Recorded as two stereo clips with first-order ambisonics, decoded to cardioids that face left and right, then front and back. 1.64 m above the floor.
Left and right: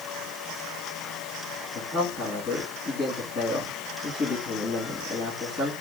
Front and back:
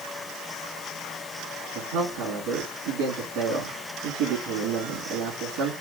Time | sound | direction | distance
1.8 | a man speaking | 155° left | 2.5 m